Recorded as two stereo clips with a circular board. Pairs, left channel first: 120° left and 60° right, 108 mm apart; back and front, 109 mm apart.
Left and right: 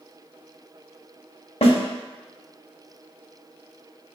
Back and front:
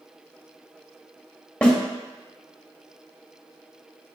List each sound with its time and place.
1.6 s a snare drum: 105° left, 0.9 m